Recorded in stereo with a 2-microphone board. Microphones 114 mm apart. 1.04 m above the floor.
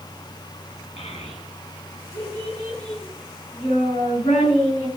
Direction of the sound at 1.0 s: 65° left (ahead or behind).